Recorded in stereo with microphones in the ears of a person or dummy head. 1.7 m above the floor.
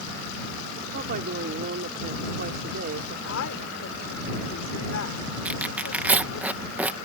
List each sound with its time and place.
0.9 s a woman speaking: 55° right (ahead or behind)
3.2 s a woman speaking: 70° left (ahead or behind)
5.5 s tearing paper: 5° right (ahead or behind)